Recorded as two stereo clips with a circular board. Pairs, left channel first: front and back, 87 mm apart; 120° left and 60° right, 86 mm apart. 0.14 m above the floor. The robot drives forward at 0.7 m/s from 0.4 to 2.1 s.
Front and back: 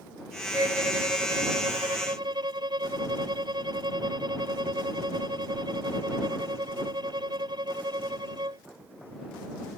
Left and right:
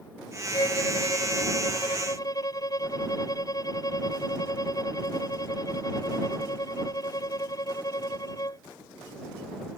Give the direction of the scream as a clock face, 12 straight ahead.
No scream in this recording.